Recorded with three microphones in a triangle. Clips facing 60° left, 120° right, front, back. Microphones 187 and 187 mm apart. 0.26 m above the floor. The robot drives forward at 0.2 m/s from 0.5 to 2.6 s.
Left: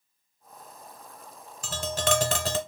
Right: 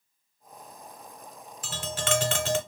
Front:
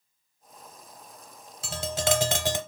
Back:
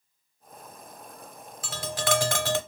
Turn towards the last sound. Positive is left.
turn(degrees=65)